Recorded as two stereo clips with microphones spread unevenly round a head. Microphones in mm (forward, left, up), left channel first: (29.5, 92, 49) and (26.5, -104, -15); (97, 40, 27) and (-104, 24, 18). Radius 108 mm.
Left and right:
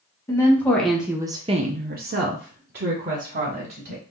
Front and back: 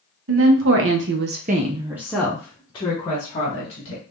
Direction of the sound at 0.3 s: 170° left.